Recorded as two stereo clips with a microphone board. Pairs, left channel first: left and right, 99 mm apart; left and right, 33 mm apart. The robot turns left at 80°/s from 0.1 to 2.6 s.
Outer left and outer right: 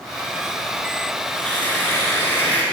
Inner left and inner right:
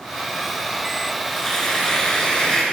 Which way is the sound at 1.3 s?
10° left (ahead or behind).